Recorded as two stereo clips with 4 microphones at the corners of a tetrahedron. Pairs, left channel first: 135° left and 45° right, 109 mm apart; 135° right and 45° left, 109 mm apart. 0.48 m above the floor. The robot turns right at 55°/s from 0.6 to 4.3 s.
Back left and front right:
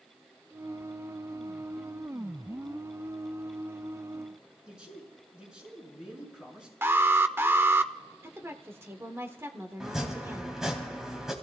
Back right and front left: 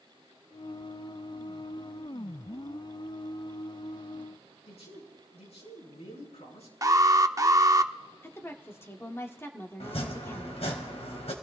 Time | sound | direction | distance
4.7 | a man speaking | 125° right | 6.5 m
6.8 | an alarm | 10° left | 0.6 m
8.2 | a woman speaking | 85° right | 1.4 m
9.8 | chopping | 130° right | 2.5 m